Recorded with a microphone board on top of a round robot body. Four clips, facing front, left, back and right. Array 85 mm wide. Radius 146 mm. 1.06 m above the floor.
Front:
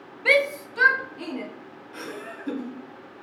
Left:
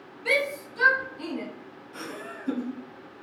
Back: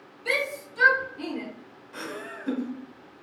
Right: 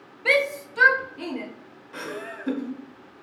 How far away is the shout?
About 0.5 m.